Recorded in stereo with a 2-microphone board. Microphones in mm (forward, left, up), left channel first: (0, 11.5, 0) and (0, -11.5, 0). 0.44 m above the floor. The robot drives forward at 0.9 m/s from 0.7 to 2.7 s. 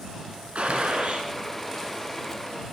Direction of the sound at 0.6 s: 70° right (ahead or behind).